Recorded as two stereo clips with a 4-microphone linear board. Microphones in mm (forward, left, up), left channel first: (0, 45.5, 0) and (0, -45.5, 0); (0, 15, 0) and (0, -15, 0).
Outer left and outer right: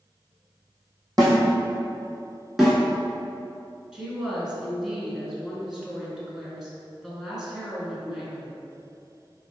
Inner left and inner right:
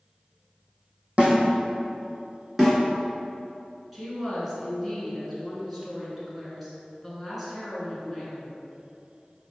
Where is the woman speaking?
5° right (ahead or behind), 1.3 m.